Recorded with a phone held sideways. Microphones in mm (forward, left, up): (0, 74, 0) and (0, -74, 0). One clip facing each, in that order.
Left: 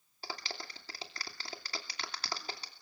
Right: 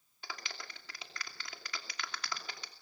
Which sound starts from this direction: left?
A clap, at 0.2 s.